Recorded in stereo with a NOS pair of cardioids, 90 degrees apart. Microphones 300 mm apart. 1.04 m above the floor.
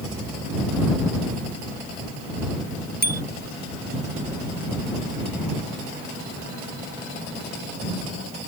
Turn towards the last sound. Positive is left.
turn(degrees=-30)